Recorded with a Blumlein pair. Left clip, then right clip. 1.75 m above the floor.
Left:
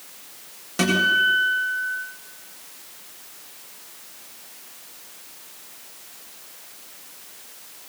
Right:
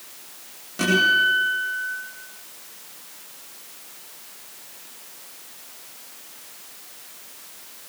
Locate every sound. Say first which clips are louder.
0.8 s a guitar: right 1 dB; 65° left, 9.5 m